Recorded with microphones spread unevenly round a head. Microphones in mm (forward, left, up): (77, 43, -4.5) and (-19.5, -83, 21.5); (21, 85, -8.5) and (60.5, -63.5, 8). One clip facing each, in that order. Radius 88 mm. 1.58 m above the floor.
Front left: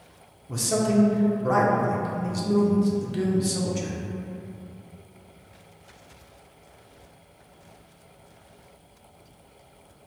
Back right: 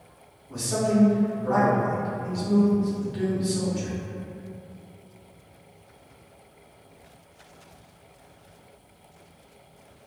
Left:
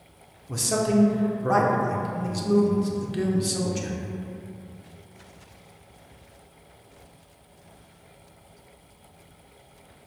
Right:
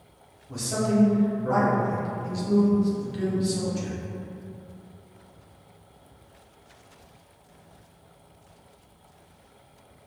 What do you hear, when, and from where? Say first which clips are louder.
0.5 s a man speaking: front left 1 dB, left 2 dB; 90° left, 0.7 m